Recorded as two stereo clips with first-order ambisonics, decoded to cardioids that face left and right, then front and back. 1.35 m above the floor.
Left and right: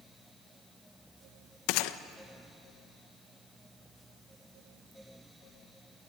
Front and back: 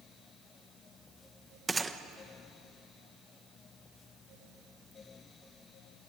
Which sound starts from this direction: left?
A gunshot, at 1.7 s.